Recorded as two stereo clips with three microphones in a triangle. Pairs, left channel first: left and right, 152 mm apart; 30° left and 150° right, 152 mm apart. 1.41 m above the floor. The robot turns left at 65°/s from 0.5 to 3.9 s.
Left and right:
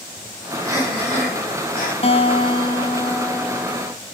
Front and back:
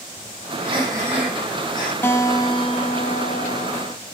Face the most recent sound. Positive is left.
turn(degrees=-25)